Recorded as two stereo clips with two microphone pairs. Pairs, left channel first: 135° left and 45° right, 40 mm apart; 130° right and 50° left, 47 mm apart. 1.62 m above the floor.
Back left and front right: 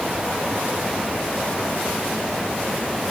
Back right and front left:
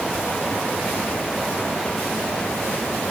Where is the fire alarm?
No fire alarm in this recording.